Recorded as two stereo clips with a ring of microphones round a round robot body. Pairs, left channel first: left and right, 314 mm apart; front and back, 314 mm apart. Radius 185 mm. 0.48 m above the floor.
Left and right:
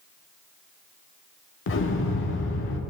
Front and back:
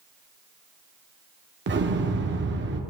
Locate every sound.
1.7 s an explosion: 130° left, 1.2 m